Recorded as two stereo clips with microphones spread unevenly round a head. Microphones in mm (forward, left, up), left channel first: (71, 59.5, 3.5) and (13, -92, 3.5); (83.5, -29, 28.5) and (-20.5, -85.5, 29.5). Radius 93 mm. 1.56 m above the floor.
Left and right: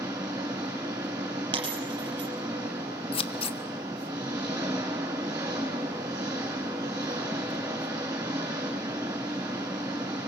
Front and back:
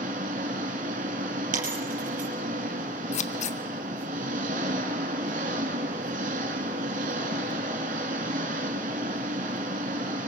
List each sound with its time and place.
0.0 s an engine running: 175° left, 3 m
1.5 s a dropped coin: 175° right, 5 m
3.1 s scissors: 15° left, 1.3 m